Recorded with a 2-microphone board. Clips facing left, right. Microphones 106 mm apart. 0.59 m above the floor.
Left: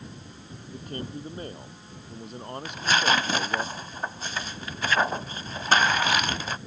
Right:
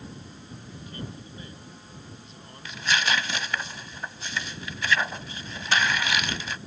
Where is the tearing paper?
40° left (ahead or behind).